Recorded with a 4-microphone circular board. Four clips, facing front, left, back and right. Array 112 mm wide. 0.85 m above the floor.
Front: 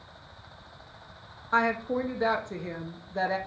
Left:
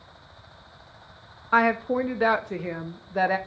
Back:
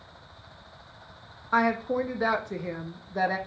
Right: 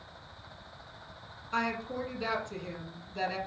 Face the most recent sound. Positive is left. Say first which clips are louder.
# left 12 dB, back 1 dB
turn(degrees=95)